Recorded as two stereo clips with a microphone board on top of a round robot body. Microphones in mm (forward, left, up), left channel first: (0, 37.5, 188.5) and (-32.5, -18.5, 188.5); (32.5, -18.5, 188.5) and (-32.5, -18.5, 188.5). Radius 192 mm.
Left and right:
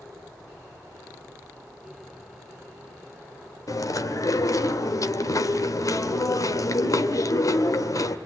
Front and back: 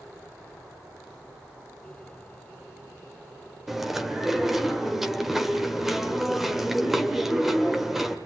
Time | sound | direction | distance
3.7 | chewing | 95° left | 2.0 m